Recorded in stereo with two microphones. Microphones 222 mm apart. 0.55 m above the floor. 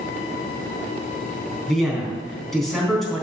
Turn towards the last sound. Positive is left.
turn(degrees=0)  # may be behind; listen again after turning